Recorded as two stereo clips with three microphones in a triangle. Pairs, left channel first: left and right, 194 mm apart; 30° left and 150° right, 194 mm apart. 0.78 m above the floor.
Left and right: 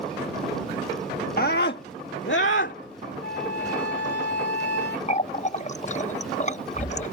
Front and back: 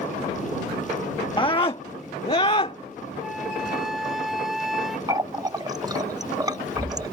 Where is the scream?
85° left; by 2.8 s 90° left.